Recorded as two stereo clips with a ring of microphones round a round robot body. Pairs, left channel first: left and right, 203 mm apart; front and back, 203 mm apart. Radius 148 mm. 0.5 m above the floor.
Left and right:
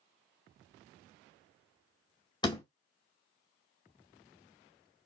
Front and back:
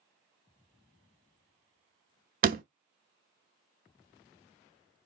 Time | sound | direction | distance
2.4 | a door slam | 155° left | 0.6 m